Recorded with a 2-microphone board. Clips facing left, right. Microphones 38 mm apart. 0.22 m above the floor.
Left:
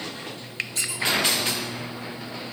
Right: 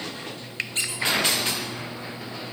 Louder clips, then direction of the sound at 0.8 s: Right 2 dB; 40° right (ahead or behind).